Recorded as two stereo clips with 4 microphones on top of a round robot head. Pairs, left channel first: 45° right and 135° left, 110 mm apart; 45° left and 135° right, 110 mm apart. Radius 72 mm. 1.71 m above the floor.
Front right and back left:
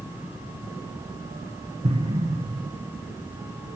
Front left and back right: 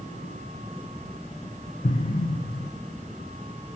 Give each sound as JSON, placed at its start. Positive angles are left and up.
{"t": 1.8, "sound": "an explosion", "azimuth_deg": 90, "distance_m": 0.6}